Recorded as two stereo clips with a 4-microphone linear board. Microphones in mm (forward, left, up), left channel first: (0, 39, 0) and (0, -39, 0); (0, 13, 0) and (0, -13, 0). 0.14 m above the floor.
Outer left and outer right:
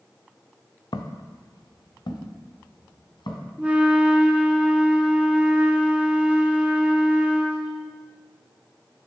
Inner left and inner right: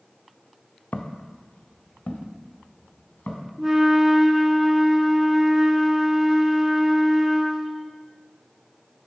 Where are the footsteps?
85° left, 0.6 m; by 3.5 s 75° left (ahead or behind), 2 m.